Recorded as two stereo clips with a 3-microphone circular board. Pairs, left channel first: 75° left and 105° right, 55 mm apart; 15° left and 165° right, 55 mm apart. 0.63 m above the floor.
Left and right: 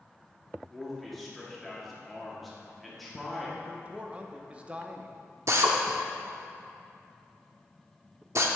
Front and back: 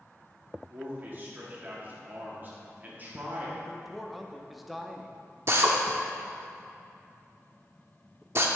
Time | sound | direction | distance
0.7 | a man speaking | 160° left | 1.6 m
3.6 | a man speaking | 80° right | 0.5 m
5.5 | a drill | 130° right | 0.7 m